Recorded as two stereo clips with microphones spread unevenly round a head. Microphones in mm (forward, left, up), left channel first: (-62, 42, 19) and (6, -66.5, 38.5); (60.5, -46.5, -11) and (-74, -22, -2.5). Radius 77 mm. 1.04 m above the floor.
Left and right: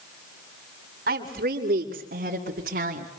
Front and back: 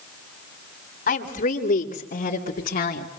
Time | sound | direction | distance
1.1 | a woman speaking | 35° right | 4 m